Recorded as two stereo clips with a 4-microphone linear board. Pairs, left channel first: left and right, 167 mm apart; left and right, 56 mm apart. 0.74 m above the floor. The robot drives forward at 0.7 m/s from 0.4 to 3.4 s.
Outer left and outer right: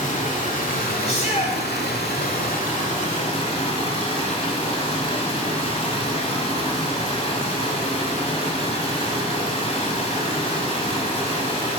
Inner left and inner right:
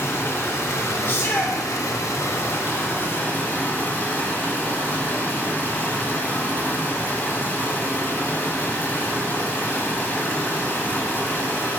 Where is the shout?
40° left (ahead or behind), 2 m; by 1.6 s 45° left (ahead or behind), 1.9 m.